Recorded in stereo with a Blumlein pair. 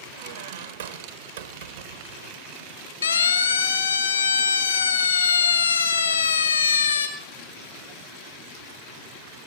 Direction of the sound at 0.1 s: 60° right.